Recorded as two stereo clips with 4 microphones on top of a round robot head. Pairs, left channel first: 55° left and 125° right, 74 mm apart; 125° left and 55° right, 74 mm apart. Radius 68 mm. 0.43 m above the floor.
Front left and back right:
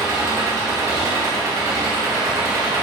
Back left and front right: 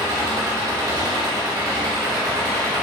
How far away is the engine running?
About 2.5 m.